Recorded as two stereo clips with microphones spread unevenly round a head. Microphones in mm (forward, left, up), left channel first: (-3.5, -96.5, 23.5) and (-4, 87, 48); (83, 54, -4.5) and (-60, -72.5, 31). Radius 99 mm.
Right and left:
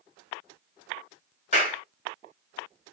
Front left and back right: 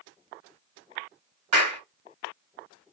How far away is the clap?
About 3 m.